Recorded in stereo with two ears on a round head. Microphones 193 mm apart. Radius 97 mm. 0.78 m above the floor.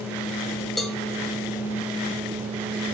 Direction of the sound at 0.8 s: Centre (ahead or behind).